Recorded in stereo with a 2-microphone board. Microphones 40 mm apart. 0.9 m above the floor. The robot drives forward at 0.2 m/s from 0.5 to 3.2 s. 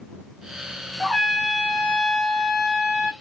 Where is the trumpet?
5° right (ahead or behind), 0.8 m.